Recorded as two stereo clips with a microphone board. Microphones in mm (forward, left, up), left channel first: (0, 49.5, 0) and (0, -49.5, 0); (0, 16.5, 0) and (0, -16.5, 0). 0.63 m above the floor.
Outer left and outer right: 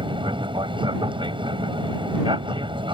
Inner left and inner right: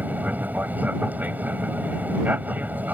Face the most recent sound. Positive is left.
turn(degrees=-60)  # may be behind; listen again after turning